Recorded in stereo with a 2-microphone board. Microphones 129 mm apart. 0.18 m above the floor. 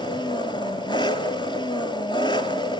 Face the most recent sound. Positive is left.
turn(degrees=35)  # may be behind; listen again after turning